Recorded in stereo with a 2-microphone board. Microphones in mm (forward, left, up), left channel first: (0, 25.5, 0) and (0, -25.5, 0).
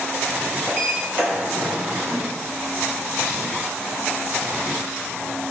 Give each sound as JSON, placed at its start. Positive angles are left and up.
{"t": 0.7, "sound": "a sliding door", "side_deg": -45, "distance_m": 1.3}